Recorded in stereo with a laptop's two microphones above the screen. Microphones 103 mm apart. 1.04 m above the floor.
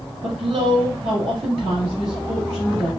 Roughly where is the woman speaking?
Right.